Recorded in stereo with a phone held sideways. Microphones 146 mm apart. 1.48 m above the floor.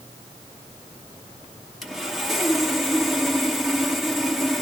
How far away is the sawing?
About 1.1 m.